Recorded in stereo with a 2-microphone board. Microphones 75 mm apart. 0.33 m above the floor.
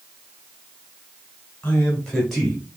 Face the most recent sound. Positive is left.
turn(degrees=-15)  # may be behind; listen again after turning